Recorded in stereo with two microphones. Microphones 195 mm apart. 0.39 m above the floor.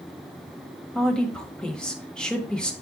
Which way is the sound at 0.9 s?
5° left (ahead or behind).